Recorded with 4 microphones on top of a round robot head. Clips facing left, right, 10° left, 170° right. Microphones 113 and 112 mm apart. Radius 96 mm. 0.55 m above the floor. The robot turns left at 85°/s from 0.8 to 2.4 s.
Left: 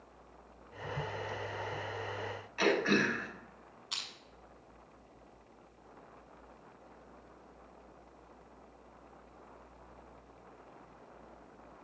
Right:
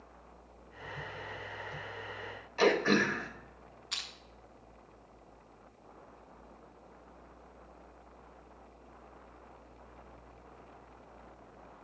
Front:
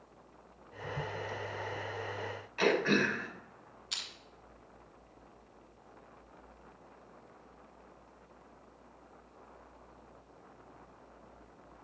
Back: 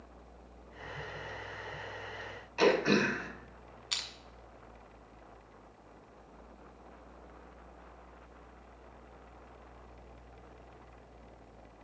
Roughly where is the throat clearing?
Behind right.